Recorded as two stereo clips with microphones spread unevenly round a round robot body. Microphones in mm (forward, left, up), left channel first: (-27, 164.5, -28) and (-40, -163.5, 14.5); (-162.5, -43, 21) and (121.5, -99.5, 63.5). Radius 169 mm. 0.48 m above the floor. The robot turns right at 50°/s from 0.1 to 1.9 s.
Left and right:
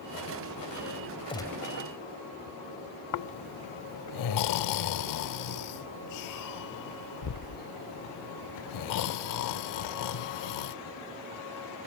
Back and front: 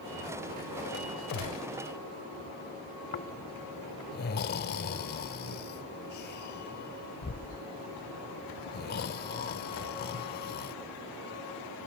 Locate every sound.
1.3 s a gunshot: 165° left; by 1.7 s 175° right
3.1 s snoring: 115° left